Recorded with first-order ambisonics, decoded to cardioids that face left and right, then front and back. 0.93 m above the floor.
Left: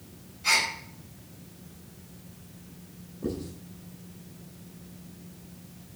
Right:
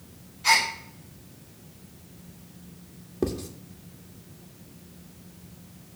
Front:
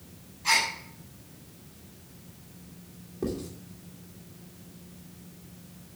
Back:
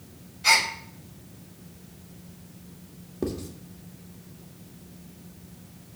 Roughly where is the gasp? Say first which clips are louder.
Right 3 dB, back 4 dB; behind.